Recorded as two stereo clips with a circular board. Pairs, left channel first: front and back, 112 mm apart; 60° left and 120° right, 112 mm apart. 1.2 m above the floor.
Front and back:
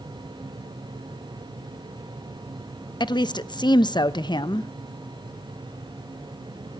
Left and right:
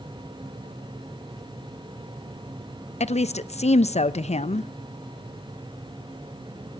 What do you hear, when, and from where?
3.0 s a woman speaking: 50° left, 0.8 m